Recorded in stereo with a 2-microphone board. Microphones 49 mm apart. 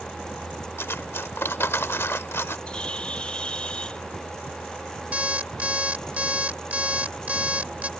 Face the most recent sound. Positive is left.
turn(degrees=-30)  # may be behind; listen again after turning